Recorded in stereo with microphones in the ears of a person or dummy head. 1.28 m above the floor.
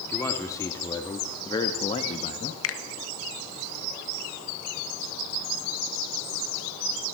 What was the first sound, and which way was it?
A man speaking, 15° left (ahead or behind).